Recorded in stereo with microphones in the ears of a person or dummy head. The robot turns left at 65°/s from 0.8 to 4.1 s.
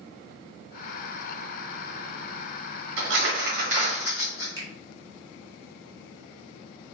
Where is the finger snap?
20° right (ahead or behind), 1.8 m.